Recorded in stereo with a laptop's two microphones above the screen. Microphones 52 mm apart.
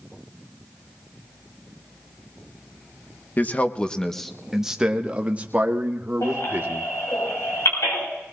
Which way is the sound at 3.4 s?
35° left (ahead or behind).